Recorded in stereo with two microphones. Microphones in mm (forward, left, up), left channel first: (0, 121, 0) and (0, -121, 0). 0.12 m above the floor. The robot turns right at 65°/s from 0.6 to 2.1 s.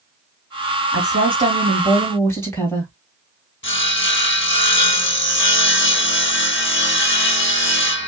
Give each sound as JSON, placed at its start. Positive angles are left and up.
{"t": 0.9, "sound": "a woman speaking", "azimuth_deg": -65, "distance_m": 3.0}
{"t": 3.6, "sound": "sawing", "side_deg": 50, "distance_m": 0.7}